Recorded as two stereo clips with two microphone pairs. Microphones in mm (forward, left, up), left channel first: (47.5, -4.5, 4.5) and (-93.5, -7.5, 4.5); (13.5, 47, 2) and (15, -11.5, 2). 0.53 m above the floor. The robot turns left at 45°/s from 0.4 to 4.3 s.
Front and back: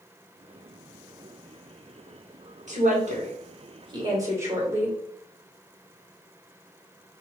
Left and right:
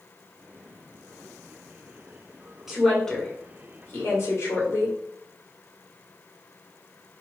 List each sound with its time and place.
2.7 s a woman speaking: 170° right, 1.8 m; by 5.0 s 115° left, 1.8 m